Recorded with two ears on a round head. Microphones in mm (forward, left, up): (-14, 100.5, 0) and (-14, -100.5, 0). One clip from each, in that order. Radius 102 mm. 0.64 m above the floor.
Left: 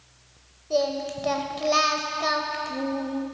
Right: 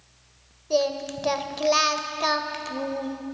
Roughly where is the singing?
Right.